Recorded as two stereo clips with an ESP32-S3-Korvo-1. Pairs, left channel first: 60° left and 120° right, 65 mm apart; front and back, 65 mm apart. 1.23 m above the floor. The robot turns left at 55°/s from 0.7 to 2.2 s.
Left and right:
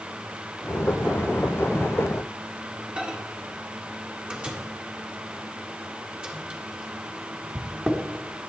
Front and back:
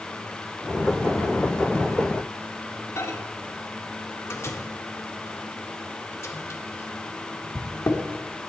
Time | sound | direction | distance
3.0 | a microwave | 50° right | 1.7 m